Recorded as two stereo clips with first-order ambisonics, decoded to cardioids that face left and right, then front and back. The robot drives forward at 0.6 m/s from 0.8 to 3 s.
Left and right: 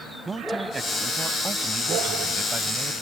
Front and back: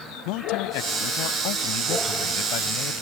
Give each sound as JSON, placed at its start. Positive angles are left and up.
{"t": 0.2, "sound": "a man speaking", "azimuth_deg": -15}